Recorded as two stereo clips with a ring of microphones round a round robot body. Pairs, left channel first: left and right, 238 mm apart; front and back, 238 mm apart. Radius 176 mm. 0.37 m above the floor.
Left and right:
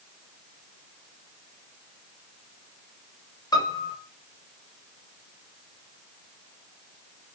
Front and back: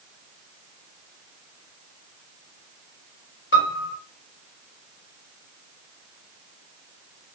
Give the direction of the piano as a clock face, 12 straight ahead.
11 o'clock.